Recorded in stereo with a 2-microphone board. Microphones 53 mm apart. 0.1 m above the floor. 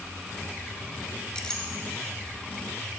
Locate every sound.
1.4 s a clink: 15° left (ahead or behind), 0.9 m